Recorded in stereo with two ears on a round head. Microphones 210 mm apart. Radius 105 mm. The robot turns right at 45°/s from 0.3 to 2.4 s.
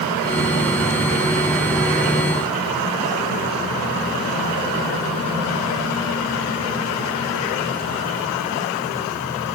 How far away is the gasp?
I don't hear a gasp.